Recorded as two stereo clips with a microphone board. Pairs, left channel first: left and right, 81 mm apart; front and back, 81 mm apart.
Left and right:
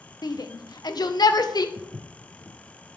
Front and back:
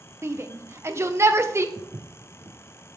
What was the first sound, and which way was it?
A shout, 125° left.